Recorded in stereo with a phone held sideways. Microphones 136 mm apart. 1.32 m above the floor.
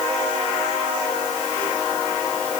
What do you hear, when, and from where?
Only background noise.